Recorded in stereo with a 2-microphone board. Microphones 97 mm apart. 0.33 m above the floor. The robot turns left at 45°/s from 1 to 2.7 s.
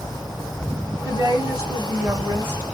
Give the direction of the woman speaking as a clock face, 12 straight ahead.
3 o'clock.